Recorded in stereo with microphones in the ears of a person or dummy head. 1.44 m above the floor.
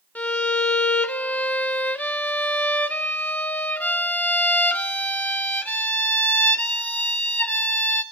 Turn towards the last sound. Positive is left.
turn(degrees=10)  # may be behind; listen again after turning